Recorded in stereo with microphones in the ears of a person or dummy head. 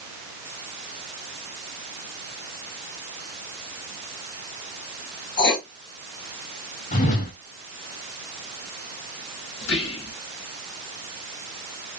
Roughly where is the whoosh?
Left.